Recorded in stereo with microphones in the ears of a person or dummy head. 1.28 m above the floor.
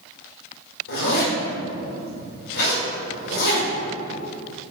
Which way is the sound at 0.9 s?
75° left (ahead or behind).